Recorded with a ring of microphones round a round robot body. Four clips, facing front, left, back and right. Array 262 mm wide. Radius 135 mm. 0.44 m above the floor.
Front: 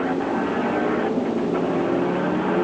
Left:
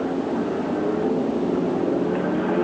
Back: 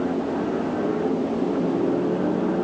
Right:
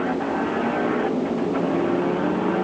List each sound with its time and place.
Only background noise.